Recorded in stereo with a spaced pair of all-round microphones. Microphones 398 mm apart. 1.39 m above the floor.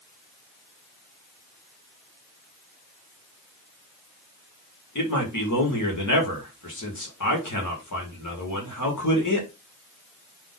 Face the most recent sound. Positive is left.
turn(degrees=50)  # may be behind; listen again after turning